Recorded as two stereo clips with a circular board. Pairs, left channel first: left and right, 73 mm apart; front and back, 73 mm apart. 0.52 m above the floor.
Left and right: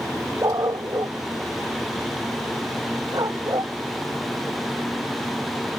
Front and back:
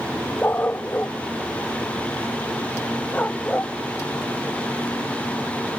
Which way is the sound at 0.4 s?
60° right.